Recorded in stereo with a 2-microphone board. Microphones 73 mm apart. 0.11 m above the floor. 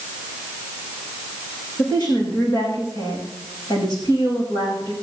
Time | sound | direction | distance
1.8 | a woman speaking | 80° left | 7 m